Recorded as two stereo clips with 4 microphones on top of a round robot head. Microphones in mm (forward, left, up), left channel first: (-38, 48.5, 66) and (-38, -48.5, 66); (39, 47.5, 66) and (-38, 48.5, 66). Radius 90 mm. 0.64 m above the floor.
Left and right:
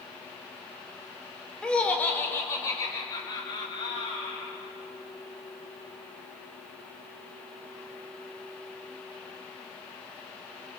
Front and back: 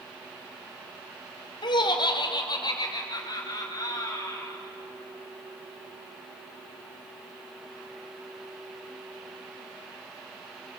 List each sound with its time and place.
1.6 s laughter: 10° left, 2.5 m; by 4.5 s 45° left, 6 m